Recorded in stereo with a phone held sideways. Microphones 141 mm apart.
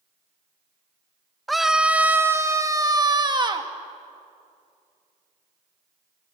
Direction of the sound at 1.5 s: Centre (ahead or behind).